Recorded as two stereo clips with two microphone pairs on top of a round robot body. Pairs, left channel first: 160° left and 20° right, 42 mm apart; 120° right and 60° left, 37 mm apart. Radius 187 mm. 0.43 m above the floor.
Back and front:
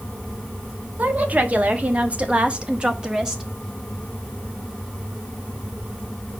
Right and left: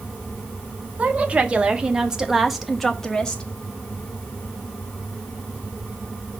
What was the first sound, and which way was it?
A woman speaking, 25° left.